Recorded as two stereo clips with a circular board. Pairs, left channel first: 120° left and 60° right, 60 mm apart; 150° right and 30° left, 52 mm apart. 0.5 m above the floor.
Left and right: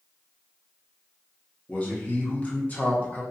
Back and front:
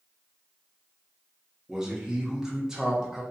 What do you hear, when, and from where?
1.7 s a man speaking: 95° left, 0.7 m